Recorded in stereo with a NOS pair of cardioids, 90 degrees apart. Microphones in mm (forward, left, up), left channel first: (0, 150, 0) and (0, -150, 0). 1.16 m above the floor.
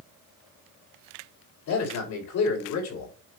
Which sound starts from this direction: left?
A man speaking, at 1.7 s.